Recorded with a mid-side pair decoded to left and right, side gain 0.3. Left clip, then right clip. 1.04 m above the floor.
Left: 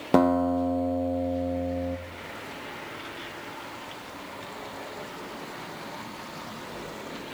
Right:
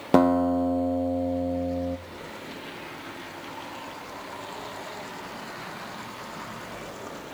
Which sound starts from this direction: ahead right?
A guitar, at 0.1 s.